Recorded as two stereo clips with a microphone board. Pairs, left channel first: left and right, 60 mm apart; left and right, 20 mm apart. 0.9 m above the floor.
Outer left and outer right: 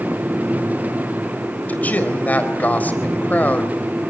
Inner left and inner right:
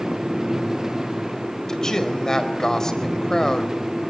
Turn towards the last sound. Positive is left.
turn(degrees=25)  # may be behind; listen again after turning